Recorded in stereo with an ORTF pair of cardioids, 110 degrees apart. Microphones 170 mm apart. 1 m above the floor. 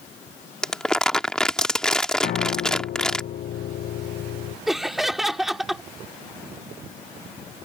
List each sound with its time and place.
0.6 s crumpling: 5° left
2.2 s a piano: 60° left
4.7 s laughter: straight ahead